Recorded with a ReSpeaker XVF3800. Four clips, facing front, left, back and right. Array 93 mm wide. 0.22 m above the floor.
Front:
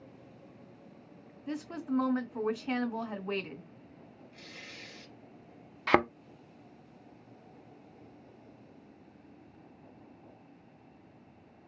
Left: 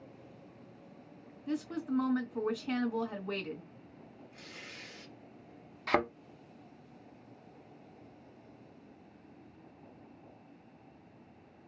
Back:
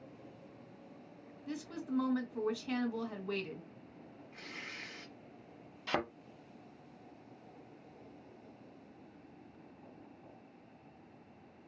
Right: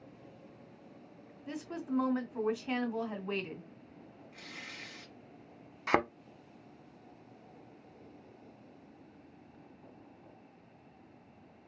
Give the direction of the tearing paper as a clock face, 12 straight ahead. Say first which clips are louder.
Right 3 dB, back 3 dB; 5 o'clock.